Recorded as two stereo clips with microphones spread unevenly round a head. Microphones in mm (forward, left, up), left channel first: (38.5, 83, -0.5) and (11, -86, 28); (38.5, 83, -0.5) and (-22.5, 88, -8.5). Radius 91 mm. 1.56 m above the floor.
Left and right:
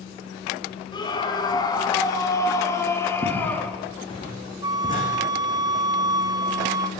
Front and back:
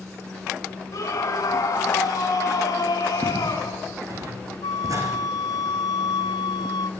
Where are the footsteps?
150° left, 7.5 m; by 5.1 s 145° left, 6.5 m.